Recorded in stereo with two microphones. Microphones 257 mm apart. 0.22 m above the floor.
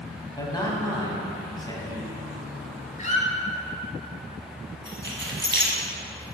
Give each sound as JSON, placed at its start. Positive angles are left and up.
{"t": 0.4, "sound": "a man speaking", "side_deg": 15, "distance_m": 1.2}
{"t": 3.0, "sound": "a squeak", "side_deg": 30, "distance_m": 0.9}
{"t": 4.8, "sound": "keys jangling", "side_deg": -45, "distance_m": 1.2}